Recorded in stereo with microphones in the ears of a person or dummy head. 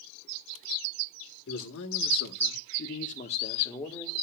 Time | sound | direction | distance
1.5 | a man speaking | 60° left (ahead or behind) | 1.3 m